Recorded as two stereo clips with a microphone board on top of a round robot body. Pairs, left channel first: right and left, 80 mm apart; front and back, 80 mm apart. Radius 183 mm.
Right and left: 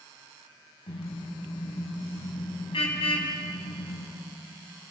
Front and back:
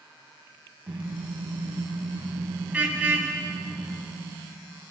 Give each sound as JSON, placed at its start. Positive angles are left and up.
{"t": 0.9, "sound": "a car horn", "azimuth_deg": -105, "distance_m": 3.5}